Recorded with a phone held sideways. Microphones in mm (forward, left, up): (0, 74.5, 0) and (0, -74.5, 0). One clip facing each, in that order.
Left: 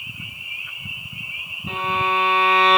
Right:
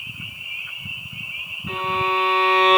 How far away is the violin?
About 3 m.